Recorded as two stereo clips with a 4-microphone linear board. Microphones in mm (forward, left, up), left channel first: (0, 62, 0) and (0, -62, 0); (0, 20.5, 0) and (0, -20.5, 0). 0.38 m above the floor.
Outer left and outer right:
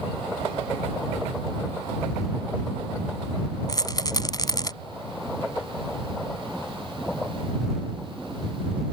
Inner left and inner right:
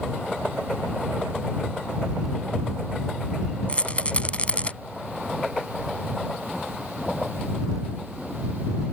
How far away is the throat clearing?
No throat clearing in this recording.